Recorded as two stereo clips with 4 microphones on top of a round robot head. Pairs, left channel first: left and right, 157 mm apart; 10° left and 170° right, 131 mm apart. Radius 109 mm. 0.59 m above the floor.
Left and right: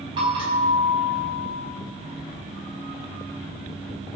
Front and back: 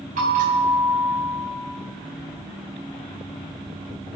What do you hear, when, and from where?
0.2 s a bell: 155° right, 5 m